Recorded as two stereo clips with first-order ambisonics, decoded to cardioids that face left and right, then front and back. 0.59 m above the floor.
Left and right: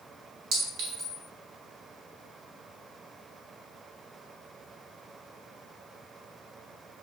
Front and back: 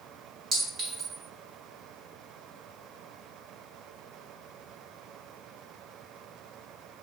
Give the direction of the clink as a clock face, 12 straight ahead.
4 o'clock.